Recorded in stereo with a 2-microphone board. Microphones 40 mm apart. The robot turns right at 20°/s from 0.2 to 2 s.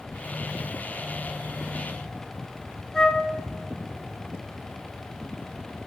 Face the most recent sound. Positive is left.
turn(degrees=10)  # may be behind; listen again after turning